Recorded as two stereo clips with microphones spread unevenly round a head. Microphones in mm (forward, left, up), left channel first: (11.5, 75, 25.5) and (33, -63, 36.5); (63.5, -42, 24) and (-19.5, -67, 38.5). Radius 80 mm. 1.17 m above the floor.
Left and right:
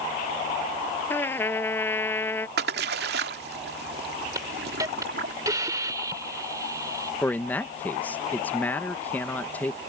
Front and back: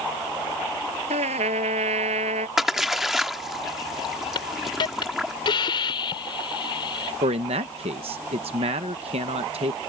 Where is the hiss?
15° right.